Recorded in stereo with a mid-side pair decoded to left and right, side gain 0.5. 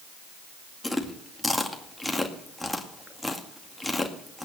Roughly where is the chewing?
Ahead.